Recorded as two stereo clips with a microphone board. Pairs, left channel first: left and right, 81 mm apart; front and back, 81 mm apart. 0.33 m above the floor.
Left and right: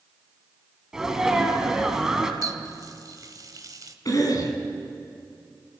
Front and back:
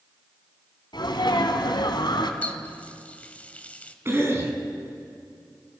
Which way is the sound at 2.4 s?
70° right.